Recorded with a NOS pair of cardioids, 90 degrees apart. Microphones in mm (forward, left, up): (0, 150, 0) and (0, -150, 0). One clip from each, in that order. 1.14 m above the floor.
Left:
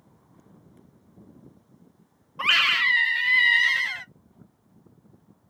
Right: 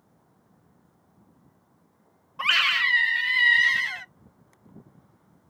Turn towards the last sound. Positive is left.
turn(degrees=0)